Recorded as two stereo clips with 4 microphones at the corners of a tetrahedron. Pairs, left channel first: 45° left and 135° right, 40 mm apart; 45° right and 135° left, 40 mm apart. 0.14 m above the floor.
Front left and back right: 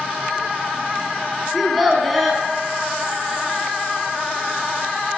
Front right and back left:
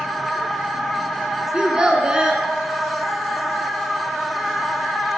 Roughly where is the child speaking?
Behind left.